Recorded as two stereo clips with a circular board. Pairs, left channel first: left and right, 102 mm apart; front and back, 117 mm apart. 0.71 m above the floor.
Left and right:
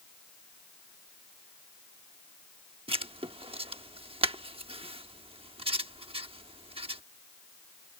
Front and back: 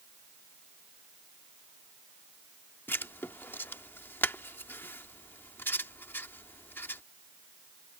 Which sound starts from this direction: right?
Writing, at 2.9 s.